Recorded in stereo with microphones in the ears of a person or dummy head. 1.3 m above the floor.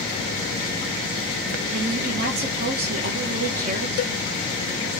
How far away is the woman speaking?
About 1.6 m.